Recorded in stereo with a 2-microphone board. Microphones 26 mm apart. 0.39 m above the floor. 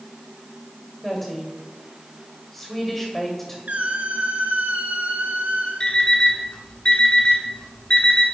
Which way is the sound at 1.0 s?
5° left (ahead or behind).